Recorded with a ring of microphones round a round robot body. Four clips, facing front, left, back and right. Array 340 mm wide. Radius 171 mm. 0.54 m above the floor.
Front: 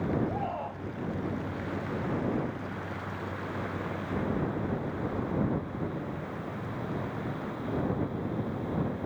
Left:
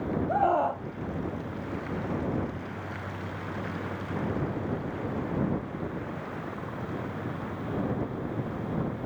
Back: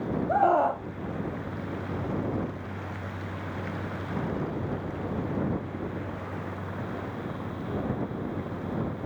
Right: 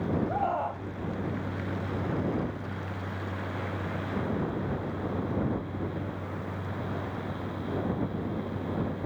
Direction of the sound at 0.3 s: 155° left.